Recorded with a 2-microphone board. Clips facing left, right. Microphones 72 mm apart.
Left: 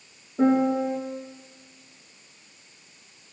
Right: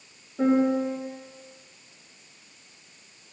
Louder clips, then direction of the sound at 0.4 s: Left 1 dB; 25° left (ahead or behind).